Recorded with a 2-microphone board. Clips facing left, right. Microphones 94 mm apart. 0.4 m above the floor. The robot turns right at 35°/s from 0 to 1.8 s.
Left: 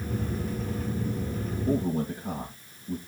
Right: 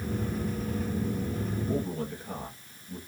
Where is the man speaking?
65° left (ahead or behind), 6 m; by 3.0 s 70° left (ahead or behind), 6 m.